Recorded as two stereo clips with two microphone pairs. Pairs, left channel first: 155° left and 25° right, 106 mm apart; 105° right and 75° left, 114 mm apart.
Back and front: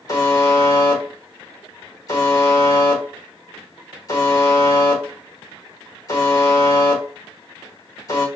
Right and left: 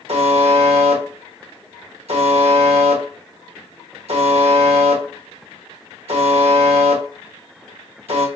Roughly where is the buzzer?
Left.